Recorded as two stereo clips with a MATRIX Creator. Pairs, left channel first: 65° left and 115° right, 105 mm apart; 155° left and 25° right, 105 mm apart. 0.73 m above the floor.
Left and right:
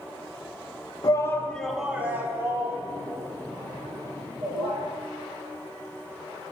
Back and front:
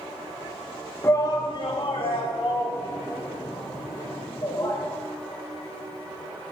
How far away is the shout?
About 0.8 m.